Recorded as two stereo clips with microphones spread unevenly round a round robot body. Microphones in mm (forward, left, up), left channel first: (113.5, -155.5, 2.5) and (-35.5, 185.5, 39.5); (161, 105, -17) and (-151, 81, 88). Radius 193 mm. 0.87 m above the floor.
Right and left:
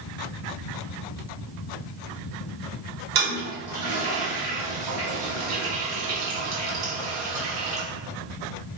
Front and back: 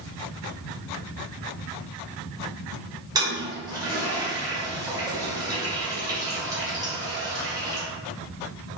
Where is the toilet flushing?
120° left, 0.9 m.